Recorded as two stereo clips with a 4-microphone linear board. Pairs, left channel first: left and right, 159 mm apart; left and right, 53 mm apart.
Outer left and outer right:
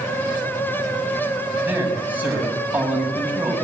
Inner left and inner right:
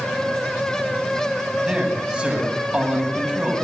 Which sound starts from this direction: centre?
A man speaking, at 1.6 s.